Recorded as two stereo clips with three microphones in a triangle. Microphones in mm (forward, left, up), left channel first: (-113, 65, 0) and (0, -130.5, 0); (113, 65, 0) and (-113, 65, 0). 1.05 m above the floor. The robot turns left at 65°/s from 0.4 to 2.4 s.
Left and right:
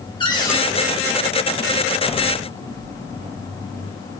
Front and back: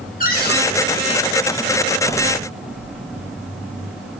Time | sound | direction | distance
0.2 | a cupboard door | 50° left | 2.5 m